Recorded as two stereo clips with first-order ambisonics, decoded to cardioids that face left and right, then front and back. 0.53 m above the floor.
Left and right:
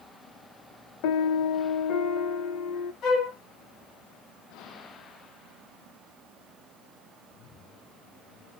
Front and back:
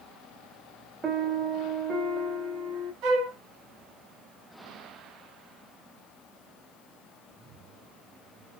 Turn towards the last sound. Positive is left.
turn(degrees=140)